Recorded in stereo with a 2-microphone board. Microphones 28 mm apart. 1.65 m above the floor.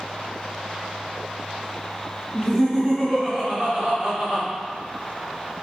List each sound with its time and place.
2.3 s laughter: 10° right (ahead or behind), 1.3 m; by 4.5 s 50° right (ahead or behind), 1.8 m